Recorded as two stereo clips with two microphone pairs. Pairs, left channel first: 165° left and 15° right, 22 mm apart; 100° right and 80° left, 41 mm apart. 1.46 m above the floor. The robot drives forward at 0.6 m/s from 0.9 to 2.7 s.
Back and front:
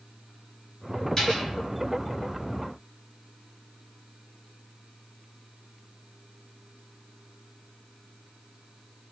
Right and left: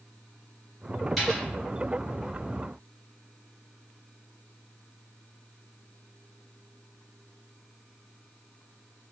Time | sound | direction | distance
1.2 | a dropped coin | 165° left | 1.2 m